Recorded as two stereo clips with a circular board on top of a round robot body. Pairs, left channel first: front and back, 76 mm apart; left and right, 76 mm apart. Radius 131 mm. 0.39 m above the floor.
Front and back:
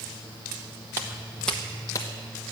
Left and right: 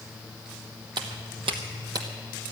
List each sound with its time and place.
1.0 s footsteps: 120° right, 0.9 m; by 2.1 s 45° right, 1.1 m